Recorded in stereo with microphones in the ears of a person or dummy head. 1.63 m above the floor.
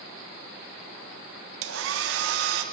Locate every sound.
1.6 s a hair dryer: 80° right, 1.6 m